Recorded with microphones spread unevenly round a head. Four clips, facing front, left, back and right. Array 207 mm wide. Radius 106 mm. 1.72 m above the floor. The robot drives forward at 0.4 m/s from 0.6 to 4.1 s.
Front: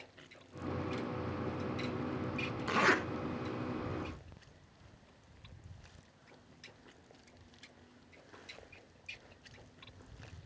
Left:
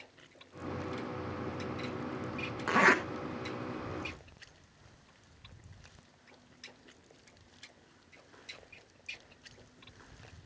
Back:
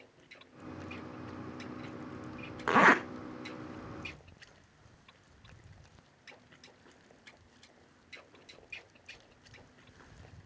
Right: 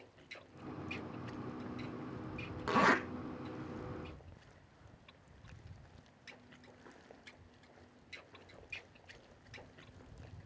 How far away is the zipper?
About 1.3 m.